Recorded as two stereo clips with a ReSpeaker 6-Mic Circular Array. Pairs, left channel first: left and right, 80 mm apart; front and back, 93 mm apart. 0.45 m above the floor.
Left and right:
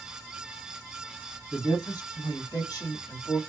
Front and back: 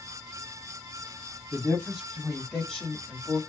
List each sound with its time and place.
1.5 s a woman speaking: 100° left, 1.9 m; by 3.4 s 70° left, 1.3 m